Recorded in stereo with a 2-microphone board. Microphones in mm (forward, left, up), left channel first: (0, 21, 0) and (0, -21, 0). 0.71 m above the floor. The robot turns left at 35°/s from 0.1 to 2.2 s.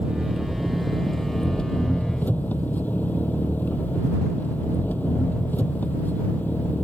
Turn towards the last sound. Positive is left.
turn(degrees=135)